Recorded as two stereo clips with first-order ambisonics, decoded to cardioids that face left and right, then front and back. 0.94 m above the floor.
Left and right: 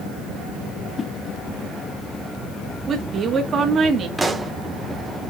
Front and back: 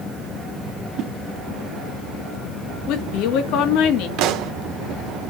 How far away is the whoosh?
About 0.8 m.